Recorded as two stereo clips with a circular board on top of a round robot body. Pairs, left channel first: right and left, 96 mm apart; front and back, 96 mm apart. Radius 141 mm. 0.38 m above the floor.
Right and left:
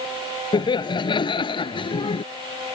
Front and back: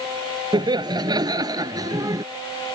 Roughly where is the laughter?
Behind right.